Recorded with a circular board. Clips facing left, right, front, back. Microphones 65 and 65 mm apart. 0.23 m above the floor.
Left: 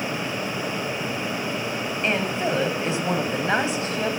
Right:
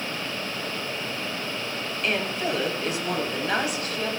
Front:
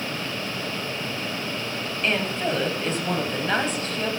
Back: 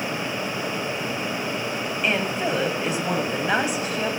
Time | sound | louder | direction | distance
2.0 | a woman speaking | left 2 dB, even | 115° left | 1.0 m